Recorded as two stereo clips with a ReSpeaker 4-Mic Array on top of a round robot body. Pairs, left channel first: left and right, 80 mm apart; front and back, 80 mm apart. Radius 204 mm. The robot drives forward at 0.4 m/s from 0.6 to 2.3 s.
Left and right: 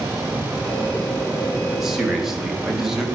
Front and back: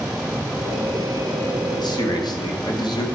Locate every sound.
1.7 s a man speaking: 5° right, 2.5 m